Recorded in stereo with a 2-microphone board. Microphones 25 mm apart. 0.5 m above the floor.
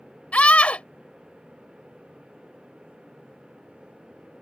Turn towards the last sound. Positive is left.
turn(degrees=60)  # may be behind; listen again after turning